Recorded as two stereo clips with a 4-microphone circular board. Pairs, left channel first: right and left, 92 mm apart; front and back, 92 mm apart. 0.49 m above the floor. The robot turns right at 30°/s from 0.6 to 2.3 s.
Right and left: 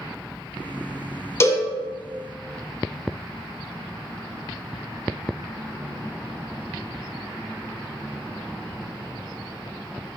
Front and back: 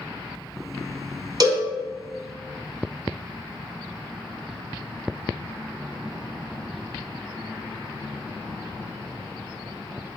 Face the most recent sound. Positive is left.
turn(degrees=-115)